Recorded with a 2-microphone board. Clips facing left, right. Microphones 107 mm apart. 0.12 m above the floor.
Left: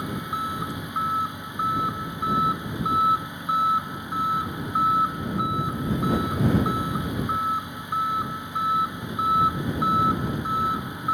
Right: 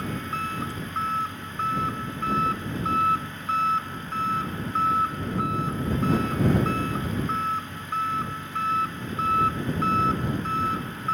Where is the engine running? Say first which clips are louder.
Left 1 dB; 15° left (ahead or behind).